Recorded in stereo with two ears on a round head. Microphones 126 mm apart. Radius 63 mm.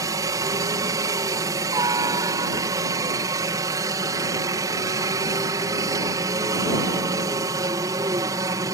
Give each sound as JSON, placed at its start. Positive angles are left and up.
{"t": 0.0, "sound": "a helicopter", "side_deg": -25}